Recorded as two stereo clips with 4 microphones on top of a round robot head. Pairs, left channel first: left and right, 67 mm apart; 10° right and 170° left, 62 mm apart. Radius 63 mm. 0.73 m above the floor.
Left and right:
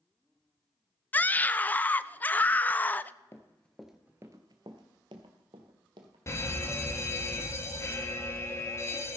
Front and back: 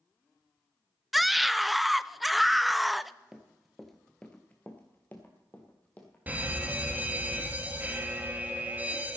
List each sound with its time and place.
1.1 s a scream: 80° left, 0.5 m
3.3 s running footsteps: 95° left, 0.7 m; by 6.2 s 85° right, 1.6 m
6.3 s a fire alarm: 115° left, 2.0 m